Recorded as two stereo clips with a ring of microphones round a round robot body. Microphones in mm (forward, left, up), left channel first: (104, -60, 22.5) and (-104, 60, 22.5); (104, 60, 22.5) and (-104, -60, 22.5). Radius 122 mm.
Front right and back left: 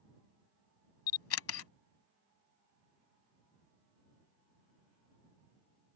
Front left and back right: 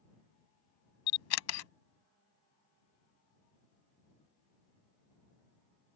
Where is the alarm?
No alarm in this recording.